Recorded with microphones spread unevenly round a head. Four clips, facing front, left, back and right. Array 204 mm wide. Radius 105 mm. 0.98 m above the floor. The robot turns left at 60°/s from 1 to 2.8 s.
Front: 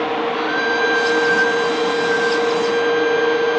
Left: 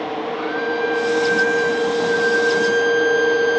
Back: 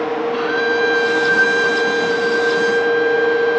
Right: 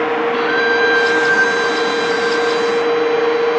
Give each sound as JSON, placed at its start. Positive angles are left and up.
{"t": 0.3, "sound": "a violin", "azimuth_deg": -110}